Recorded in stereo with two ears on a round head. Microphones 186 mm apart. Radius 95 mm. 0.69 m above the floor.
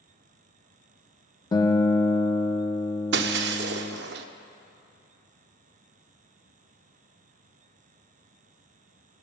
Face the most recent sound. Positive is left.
turn(degrees=-55)  # may be behind; listen again after turning